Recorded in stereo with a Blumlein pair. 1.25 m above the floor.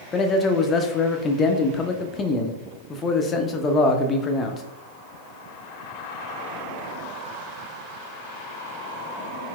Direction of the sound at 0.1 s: 20° left.